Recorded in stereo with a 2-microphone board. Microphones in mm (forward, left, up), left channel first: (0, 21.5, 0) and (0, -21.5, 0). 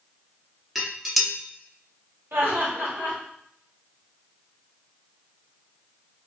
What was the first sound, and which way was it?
Dishes clattering, centre (ahead or behind).